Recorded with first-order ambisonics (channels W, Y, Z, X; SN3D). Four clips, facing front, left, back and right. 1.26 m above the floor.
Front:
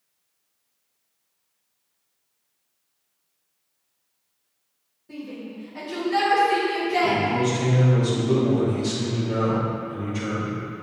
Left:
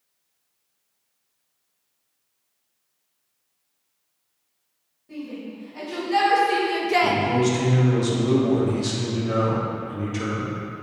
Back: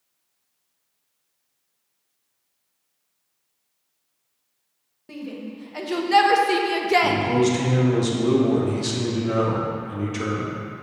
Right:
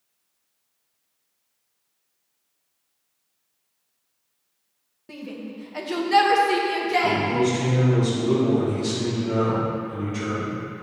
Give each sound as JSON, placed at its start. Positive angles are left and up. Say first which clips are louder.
{"t": 5.1, "sound": "a shout", "louder": "left 1 dB, back 2 dB", "azimuth_deg": -135, "distance_m": 1.8}
{"t": 7.0, "sound": "a man speaking", "louder": "left 1 dB, back 2 dB", "azimuth_deg": 155, "distance_m": 1.7}